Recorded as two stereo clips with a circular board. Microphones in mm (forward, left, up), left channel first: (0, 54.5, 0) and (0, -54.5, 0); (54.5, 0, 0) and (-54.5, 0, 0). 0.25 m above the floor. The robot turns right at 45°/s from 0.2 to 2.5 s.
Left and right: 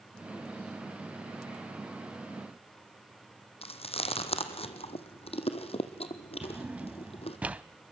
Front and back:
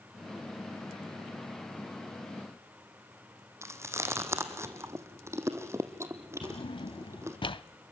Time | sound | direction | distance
3.6 | chewing | 115° left | 1.9 m
6.4 | a drawer | 15° right | 0.6 m